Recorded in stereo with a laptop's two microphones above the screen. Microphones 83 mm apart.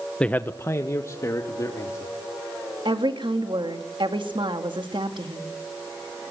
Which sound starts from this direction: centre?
A man speaking, at 0.2 s.